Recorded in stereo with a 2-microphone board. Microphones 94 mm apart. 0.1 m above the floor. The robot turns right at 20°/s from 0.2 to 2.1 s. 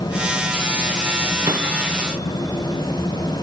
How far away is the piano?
About 2.5 m.